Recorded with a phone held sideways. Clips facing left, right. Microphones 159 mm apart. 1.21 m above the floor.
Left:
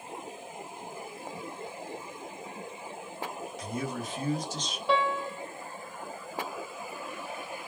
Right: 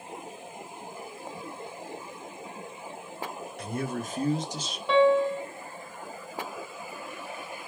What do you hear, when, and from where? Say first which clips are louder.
3.6 s a man speaking: right 3 dB; 65° right (ahead or behind), 1.1 m; by 4.8 s 5° left (ahead or behind), 0.6 m
4.9 s a piano: right 8 dB; centre (ahead or behind), 0.6 m